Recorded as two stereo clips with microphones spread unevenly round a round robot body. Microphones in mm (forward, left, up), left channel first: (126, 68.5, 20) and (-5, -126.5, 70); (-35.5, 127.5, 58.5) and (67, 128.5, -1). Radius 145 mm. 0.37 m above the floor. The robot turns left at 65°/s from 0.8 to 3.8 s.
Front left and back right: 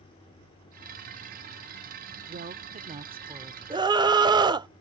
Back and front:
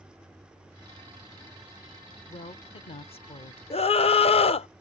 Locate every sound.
2.3 s a woman speaking: 130° right; by 3.6 s 145° left
3.7 s a scream: 165° left; by 4.7 s 160° left